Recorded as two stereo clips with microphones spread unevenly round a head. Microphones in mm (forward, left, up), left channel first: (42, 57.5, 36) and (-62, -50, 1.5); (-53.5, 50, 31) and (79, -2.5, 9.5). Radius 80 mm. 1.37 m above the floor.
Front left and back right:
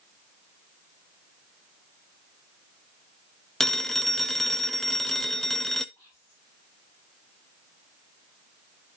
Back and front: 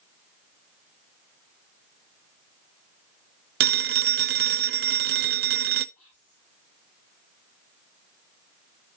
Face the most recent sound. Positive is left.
turn(degrees=120)